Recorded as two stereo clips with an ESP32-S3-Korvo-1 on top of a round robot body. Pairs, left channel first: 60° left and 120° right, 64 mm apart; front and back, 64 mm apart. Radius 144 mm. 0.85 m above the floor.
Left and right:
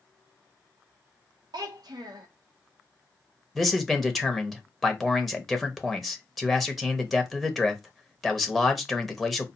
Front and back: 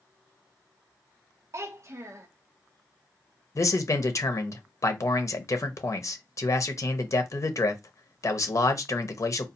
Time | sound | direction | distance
1.5 | a child speaking | 135° right | 0.7 m
3.5 | a man speaking | 30° right | 0.9 m